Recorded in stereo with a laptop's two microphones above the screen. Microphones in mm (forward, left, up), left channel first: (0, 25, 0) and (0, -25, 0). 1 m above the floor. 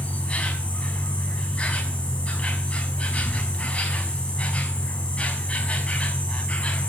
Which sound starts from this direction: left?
An insect, at 0.0 s.